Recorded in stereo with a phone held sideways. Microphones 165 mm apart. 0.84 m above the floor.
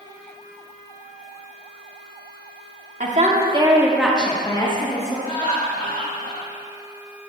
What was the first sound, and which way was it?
A woman speaking, 50° right (ahead or behind).